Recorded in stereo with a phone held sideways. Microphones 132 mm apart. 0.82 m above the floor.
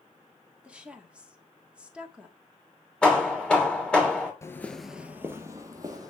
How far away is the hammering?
About 2.5 m.